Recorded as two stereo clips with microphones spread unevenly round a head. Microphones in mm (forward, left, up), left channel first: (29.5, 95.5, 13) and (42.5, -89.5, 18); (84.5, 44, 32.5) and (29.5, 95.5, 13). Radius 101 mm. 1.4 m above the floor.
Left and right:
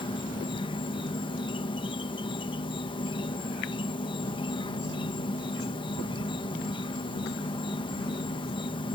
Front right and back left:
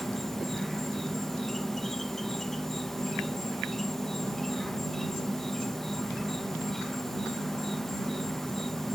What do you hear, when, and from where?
0.0 s an insect: 35° left